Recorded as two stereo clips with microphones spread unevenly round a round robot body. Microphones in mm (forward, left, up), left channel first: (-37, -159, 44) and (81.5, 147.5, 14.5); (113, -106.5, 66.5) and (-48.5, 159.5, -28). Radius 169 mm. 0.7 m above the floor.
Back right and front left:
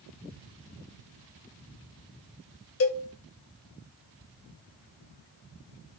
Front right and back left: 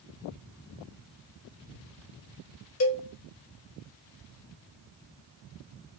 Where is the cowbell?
100° right, 0.9 m.